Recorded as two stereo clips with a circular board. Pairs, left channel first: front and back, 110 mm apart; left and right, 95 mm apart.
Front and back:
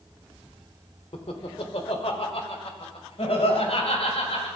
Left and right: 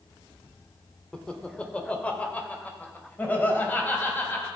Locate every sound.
1.1 s laughter: 10° left, 1.4 m; by 4.5 s 20° left, 3 m